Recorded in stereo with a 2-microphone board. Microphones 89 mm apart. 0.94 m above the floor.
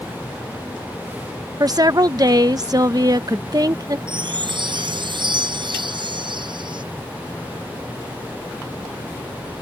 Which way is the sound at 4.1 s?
60° right (ahead or behind).